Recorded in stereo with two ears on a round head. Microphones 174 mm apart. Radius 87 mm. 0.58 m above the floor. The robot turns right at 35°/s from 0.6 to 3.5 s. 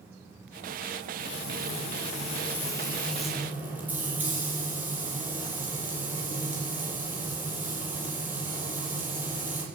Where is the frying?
110° left, 6 m; by 9.6 s 170° right, 6 m.